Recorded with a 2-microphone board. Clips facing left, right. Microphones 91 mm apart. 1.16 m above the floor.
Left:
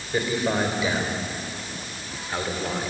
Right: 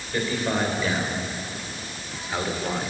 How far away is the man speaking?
About 4.5 m.